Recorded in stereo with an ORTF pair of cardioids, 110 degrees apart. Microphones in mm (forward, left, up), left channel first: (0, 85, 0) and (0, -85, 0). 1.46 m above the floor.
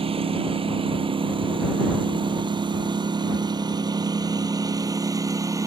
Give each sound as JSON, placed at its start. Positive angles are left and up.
{"t": 0.0, "sound": "a lawn mower", "azimuth_deg": -35}